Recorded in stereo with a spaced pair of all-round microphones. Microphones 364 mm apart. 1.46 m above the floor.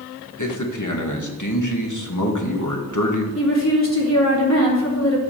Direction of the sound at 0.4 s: 55° left (ahead or behind).